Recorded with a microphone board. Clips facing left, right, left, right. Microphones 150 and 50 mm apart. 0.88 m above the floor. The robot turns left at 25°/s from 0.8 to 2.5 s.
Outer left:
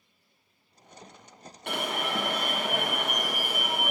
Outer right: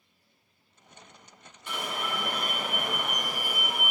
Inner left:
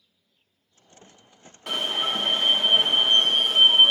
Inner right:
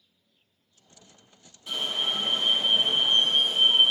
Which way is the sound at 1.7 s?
70° left (ahead or behind).